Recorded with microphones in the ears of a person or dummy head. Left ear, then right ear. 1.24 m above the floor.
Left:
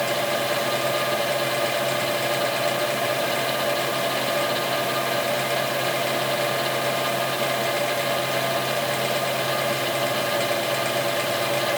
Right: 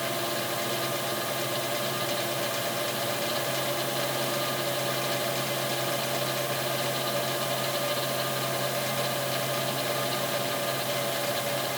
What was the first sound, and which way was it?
Only background noise.